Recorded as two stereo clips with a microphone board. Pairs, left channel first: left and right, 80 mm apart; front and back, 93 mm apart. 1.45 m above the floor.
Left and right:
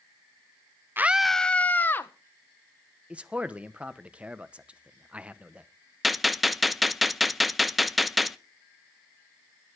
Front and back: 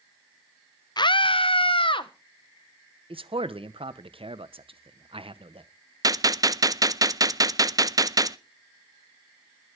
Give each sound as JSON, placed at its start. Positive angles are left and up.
{"t": 1.0, "sound": "a scream", "azimuth_deg": -30, "distance_m": 0.5}
{"t": 3.1, "sound": "a man speaking", "azimuth_deg": -165, "distance_m": 1.0}
{"t": 6.0, "sound": "a gunshot", "azimuth_deg": 180, "distance_m": 0.6}